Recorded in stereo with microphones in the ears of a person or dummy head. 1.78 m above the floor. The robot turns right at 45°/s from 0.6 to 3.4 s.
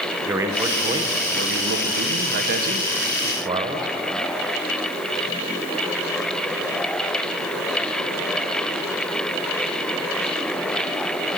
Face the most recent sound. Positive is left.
turn(degrees=-35)